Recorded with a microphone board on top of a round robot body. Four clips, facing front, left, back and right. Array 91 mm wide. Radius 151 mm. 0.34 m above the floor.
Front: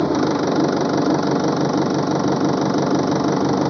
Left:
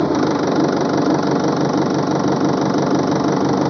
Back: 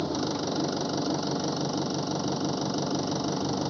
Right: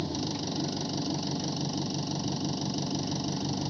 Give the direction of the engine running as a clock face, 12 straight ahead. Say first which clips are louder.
Left 17 dB, front 11 dB; 10 o'clock.